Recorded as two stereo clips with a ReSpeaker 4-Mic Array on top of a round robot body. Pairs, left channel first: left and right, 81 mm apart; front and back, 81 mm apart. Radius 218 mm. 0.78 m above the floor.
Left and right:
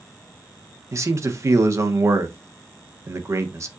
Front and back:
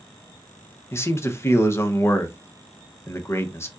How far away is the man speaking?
About 1.2 m.